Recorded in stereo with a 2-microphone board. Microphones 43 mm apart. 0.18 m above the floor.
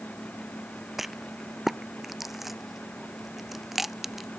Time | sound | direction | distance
1.0 | a rattle | 5° right (ahead or behind) | ?